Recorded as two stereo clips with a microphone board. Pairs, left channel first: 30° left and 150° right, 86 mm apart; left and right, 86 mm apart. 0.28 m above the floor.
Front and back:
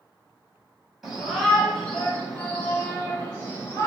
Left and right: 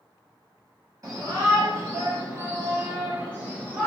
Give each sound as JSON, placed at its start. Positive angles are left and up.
{"t": 1.0, "sound": "a shout", "azimuth_deg": -60, "distance_m": 2.0}